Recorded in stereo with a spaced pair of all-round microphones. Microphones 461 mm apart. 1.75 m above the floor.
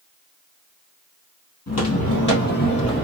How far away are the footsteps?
About 2 m.